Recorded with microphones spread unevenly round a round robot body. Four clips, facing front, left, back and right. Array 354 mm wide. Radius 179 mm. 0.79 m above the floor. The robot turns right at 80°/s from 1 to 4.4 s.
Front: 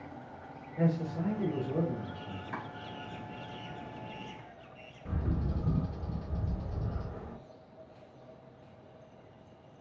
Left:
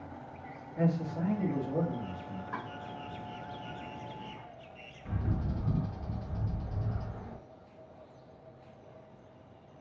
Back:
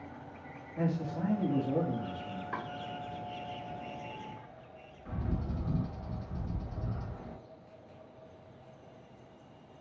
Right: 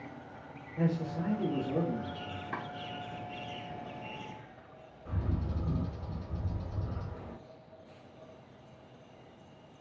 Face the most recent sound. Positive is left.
turn(degrees=40)